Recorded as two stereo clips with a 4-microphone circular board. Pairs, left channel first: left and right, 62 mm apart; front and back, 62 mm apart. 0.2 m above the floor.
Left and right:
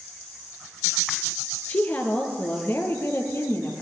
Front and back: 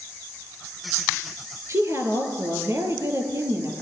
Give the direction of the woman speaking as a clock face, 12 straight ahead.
7 o'clock.